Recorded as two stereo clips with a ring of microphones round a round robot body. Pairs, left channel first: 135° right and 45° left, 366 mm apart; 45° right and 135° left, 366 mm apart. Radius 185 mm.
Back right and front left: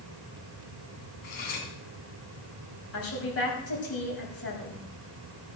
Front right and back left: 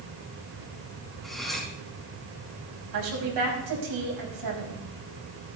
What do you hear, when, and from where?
1.2 s cutlery clinking: 135° right, 3.5 m
2.9 s a woman speaking: 170° left, 5.5 m